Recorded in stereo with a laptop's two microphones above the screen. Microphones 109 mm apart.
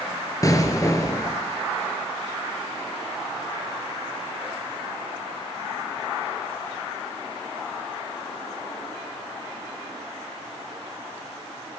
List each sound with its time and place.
0.4 s an explosion: 30° left (ahead or behind), 3.5 m